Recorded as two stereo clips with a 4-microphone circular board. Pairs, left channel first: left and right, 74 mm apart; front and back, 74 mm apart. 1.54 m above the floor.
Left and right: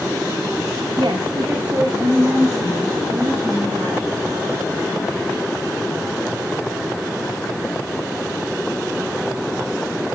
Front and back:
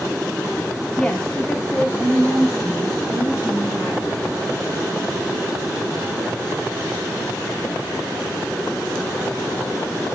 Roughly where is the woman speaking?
Right.